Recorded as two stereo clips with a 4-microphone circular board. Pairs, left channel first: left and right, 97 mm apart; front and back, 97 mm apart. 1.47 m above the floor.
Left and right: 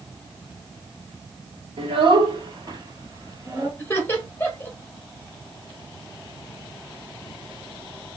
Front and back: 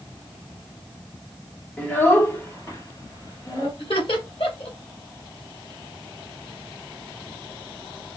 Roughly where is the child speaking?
Right.